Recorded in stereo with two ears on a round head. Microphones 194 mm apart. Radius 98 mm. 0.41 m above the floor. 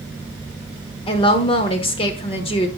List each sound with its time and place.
1.1 s a woman speaking: 25° left (ahead or behind), 1.0 m